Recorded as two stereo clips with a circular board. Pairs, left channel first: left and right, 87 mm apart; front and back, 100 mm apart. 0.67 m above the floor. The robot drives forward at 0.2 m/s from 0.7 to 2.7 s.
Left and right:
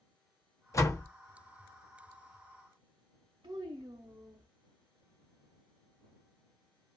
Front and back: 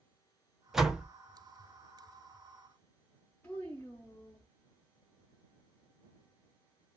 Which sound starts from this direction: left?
A door slam, at 0.7 s.